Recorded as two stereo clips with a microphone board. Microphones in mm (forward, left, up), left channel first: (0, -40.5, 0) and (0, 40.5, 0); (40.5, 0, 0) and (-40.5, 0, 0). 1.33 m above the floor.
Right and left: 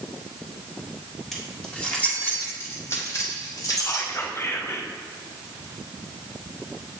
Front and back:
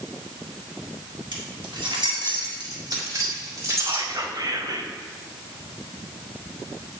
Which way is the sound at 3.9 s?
145° right.